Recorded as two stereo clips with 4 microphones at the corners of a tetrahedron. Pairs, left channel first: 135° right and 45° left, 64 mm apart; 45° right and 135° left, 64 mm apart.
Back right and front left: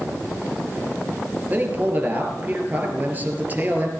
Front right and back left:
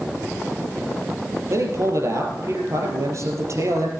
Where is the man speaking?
105° left, 3.5 m.